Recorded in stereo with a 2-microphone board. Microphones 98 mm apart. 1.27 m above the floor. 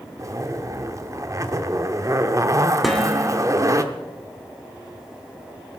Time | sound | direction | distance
0.2 | a zipper | 35° right (ahead or behind) | 1.1 m
2.8 | dishes clattering | centre (ahead or behind) | 2.5 m